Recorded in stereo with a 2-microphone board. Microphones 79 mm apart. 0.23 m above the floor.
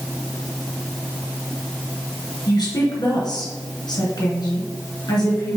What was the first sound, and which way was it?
A woman speaking, 60° left (ahead or behind).